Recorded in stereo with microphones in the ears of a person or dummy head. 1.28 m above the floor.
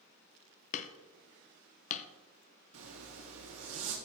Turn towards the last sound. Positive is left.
turn(degrees=-80)